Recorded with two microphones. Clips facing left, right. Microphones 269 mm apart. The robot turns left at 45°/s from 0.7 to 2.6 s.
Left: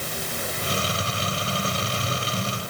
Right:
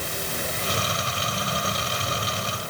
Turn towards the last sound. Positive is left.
No sound to turn to.